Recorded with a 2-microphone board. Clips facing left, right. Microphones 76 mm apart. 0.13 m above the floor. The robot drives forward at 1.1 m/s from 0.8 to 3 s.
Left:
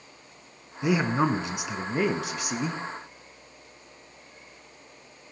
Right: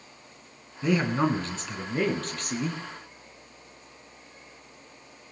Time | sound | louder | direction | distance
0.8 | a man speaking | left 1 dB | 10° left (ahead or behind) | 1.2 m